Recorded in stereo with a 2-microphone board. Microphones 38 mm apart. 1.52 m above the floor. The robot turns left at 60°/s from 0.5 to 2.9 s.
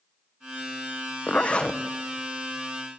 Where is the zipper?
50° left, 1.1 m; by 1.8 s 15° left, 1.1 m.